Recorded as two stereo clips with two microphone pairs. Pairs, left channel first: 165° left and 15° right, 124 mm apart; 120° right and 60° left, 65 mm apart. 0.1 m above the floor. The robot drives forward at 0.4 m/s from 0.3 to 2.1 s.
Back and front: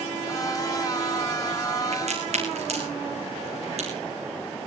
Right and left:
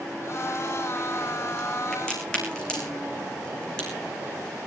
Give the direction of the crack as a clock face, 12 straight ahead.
2 o'clock.